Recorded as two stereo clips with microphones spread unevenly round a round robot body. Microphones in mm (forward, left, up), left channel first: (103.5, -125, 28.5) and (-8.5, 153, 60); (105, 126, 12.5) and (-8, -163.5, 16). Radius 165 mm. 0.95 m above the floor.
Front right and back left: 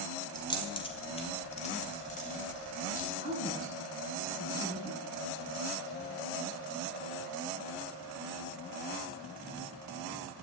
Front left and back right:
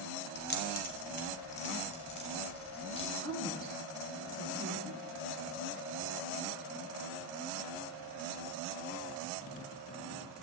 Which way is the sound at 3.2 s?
10° right.